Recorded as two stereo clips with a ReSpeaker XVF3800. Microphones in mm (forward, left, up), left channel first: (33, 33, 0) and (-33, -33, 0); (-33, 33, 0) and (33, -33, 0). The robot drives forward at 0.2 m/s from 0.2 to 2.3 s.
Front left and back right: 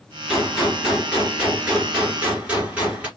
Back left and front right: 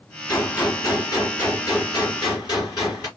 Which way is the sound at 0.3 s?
145° left.